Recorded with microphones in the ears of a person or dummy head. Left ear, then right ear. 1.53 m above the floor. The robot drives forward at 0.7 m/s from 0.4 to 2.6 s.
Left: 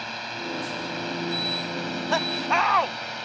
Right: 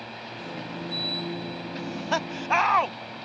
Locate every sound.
0.0 s a drone: 50° left (ahead or behind)
1.8 s laughter: 5° left (ahead or behind)